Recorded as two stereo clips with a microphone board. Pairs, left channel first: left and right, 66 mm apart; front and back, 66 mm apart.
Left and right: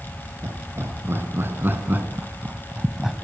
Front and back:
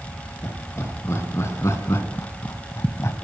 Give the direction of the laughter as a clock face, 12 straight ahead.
1 o'clock.